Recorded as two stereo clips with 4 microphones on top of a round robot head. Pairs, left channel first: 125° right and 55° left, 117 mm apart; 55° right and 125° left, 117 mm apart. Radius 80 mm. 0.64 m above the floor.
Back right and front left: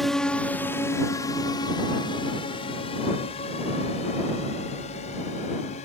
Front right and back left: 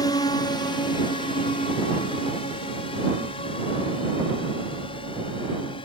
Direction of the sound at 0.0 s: 40° right.